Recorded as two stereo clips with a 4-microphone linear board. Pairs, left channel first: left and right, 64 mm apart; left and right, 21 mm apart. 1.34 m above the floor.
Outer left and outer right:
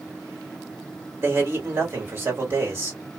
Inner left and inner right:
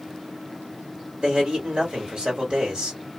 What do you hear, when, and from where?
1.2 s a man speaking: 40° right (ahead or behind), 2.5 m